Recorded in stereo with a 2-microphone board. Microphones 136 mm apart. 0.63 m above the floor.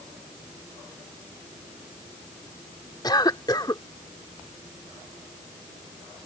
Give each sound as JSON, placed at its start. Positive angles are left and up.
{"t": 3.0, "sound": "a cough", "side_deg": 30}